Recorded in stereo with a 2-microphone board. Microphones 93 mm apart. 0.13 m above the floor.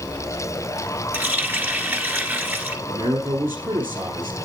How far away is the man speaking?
About 2.5 m.